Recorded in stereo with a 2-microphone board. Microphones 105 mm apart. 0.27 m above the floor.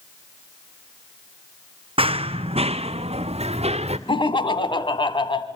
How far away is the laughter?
About 2 m.